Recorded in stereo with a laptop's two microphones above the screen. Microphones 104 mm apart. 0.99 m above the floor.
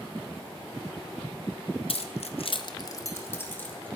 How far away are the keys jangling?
About 0.6 m.